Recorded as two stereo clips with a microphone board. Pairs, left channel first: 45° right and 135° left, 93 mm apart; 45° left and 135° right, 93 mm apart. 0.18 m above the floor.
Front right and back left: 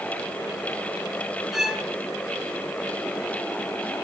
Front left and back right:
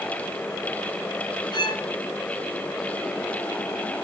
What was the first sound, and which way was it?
A violin, 50° left.